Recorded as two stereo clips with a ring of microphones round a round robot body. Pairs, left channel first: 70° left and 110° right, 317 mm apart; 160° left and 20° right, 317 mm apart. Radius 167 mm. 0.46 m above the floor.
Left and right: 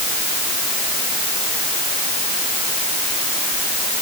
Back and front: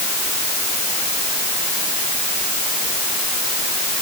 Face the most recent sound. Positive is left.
No sound to turn to.